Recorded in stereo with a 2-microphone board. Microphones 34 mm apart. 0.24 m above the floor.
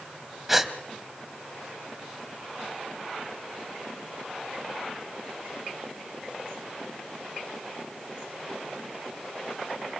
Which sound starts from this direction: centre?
A gasp, at 0.5 s.